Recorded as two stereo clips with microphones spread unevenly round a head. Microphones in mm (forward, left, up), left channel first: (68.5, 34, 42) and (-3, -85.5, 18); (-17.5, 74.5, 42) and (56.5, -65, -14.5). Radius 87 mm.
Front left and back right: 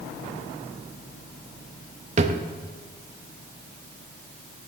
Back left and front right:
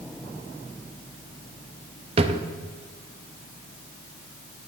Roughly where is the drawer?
Behind right.